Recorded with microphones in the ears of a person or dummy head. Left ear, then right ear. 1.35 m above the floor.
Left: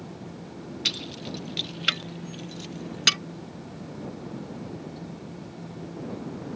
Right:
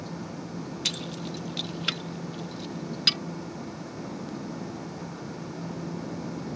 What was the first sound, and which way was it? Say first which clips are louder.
Keys jangling: left 3 dB; 5° right (ahead or behind).